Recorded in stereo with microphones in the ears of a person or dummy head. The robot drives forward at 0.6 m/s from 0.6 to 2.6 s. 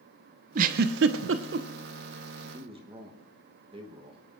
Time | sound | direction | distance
0.6 | a giggle | 50° right (ahead or behind) | 0.6 m
2.4 | a man speaking | 30° right (ahead or behind) | 1.0 m